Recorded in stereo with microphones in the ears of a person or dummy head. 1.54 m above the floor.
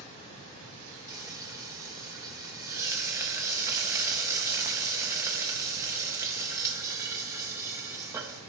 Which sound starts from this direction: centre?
Frying, at 1.1 s.